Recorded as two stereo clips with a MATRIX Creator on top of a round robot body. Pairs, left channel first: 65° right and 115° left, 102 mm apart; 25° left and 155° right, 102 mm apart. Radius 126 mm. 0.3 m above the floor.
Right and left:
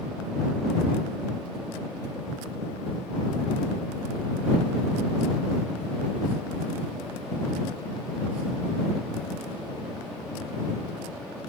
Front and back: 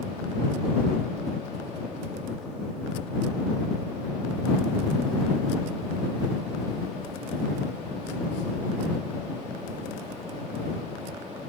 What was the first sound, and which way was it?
Ticking, 35° left.